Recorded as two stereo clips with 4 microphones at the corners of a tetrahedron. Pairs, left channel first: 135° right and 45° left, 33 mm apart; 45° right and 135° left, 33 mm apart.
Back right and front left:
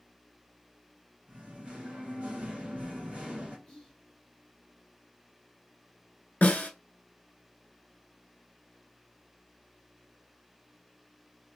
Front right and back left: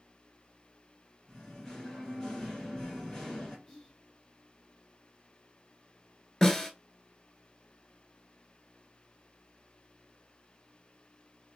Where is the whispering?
95° right, 1.2 m.